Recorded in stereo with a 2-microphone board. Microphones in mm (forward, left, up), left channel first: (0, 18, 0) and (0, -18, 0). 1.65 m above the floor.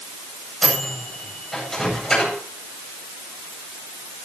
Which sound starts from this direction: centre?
A microwave, at 0.6 s.